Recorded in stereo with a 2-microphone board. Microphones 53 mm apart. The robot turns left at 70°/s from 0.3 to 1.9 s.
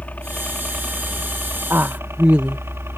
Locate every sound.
0.0 s a helicopter: 30° left (ahead or behind); by 3.0 s 55° right (ahead or behind)
1.7 s a woman speaking: 45° right (ahead or behind); by 2.6 s 30° right (ahead or behind)